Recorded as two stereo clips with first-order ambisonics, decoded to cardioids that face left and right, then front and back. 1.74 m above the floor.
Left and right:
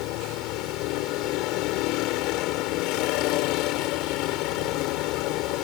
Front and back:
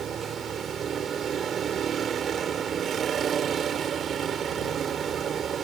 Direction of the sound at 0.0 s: 115° left.